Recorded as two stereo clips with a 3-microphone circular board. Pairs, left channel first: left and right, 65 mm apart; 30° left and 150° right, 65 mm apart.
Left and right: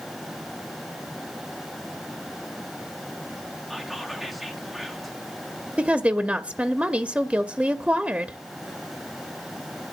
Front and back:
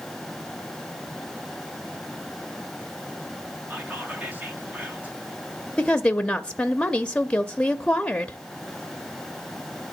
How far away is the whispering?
About 1.3 m.